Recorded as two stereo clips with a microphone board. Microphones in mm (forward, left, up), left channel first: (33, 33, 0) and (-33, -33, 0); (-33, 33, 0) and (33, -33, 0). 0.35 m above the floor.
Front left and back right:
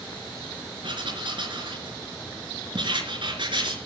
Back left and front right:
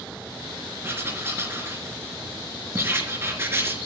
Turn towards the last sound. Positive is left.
turn(degrees=-110)